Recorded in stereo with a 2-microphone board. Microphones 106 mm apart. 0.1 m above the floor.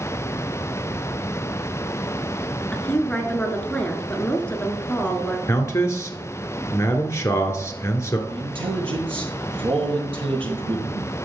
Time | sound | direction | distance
2.7 | a woman speaking | 15° left (ahead or behind) | 1.3 m
5.5 | a man speaking | 30° left (ahead or behind) | 1.2 m
8.3 | a man speaking | 60° right (ahead or behind) | 2.5 m